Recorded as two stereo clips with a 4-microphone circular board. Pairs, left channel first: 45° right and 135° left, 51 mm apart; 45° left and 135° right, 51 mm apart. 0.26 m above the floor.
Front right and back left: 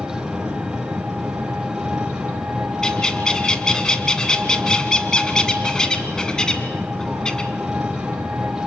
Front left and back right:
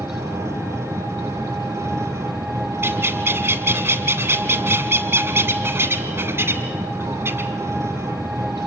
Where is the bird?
115° right, 1.8 m.